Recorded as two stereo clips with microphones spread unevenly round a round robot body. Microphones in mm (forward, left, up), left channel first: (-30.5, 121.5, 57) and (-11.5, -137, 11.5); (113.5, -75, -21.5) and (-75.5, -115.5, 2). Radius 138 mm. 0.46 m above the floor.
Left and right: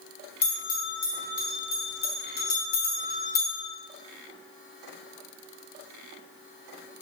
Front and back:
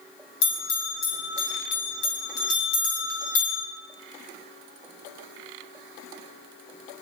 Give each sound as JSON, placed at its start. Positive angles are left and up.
{"t": 0.4, "sound": "a bell", "azimuth_deg": 30, "distance_m": 3.0}